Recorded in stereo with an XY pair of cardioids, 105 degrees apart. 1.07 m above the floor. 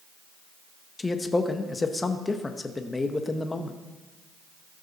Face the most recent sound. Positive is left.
turn(degrees=25)